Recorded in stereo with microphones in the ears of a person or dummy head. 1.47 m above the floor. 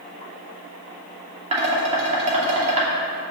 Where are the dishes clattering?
35° right (ahead or behind), 2.5 m.